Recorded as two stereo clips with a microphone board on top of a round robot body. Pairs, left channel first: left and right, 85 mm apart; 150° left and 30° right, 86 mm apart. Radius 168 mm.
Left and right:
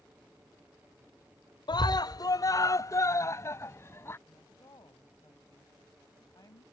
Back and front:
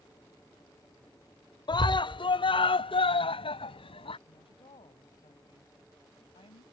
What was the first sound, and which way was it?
A scream, 125° left.